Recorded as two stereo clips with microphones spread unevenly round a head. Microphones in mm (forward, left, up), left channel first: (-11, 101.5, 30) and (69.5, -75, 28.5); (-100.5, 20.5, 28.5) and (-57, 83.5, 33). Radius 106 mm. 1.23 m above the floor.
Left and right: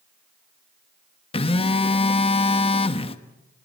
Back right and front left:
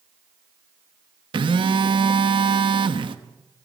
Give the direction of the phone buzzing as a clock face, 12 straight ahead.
10 o'clock.